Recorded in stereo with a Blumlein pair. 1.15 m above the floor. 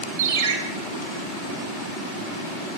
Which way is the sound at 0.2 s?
60° right.